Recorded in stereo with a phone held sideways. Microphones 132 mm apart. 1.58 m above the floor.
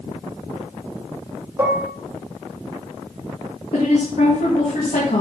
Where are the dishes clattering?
20° right (ahead or behind), 1.9 m.